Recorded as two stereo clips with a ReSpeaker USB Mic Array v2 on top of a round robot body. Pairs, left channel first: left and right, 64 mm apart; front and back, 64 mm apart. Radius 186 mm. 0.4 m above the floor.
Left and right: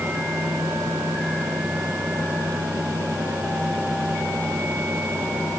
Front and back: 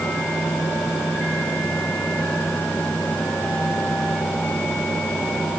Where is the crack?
I don't hear a crack.